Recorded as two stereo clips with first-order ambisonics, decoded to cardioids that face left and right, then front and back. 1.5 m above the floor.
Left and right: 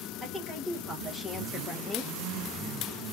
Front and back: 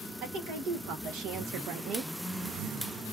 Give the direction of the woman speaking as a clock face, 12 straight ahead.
6 o'clock.